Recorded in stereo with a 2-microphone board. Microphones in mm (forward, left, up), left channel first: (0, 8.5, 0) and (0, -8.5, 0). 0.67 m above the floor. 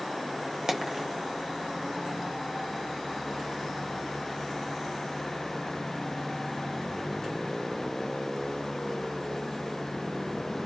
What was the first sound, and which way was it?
A dropped coin, 30° right (ahead or behind).